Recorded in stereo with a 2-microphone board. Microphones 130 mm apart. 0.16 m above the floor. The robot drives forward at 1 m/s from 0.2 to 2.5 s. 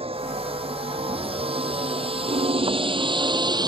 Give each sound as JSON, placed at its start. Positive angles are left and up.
{"t": 0.0, "sound": "a vehicle", "side_deg": -50}
{"t": 2.3, "sound": "a piano", "side_deg": -60}